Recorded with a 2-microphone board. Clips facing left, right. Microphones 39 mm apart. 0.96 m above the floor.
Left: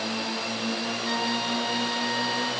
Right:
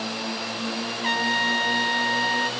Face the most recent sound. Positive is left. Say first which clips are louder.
# right 7 dB
turn(degrees=-50)  # may be behind; listen again after turning